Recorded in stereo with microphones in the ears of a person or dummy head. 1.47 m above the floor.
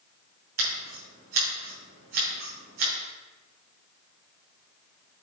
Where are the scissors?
50° right (ahead or behind), 3.5 m.